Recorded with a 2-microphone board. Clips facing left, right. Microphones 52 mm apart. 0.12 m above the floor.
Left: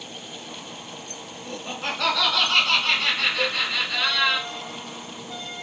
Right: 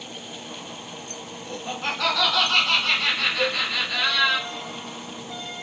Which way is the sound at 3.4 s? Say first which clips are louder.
Right 1 dB; 30° left (ahead or behind).